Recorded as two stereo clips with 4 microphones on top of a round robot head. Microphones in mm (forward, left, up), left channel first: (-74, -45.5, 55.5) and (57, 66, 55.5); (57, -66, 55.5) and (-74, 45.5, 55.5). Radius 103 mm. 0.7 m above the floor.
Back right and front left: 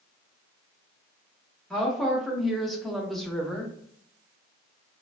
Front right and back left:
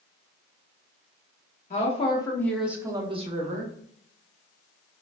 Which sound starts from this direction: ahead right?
A woman speaking, at 1.7 s.